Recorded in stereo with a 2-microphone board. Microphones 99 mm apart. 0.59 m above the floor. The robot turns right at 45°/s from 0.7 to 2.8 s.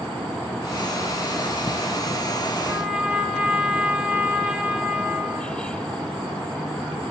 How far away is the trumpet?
About 1.5 m.